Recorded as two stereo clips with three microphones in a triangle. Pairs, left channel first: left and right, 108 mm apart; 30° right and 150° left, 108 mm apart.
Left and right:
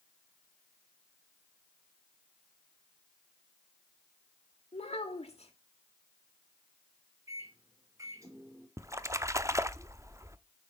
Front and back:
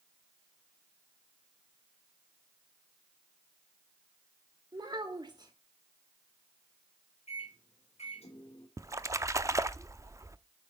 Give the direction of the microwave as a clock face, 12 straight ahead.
1 o'clock.